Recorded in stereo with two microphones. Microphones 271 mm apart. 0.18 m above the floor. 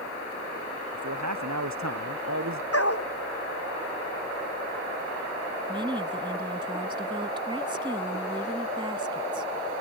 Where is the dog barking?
60° left (ahead or behind).